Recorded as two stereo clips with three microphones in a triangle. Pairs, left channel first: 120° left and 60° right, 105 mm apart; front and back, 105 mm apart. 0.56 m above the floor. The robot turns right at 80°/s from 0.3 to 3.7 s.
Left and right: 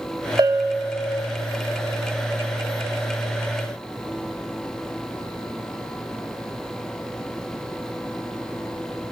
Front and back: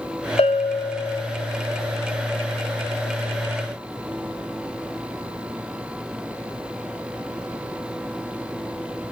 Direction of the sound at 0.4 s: 10° right.